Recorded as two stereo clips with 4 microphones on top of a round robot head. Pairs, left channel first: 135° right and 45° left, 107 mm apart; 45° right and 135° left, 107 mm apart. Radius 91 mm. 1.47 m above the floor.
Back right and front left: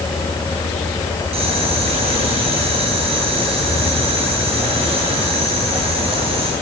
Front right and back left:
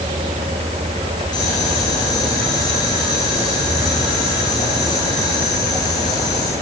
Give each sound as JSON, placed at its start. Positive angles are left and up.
{"t": 1.3, "sound": "boiling", "azimuth_deg": 10, "distance_m": 10.0}